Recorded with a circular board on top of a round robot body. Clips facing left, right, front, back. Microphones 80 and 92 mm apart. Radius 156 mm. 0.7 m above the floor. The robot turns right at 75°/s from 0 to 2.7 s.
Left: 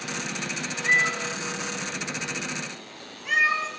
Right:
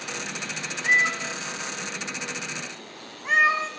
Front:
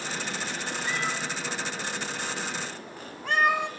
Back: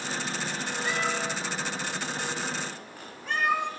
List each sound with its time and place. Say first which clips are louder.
0.8 s a cat meowing: right 1 dB, back 3 dB; 170° right, 1.6 m; by 3.7 s 35° right, 1.6 m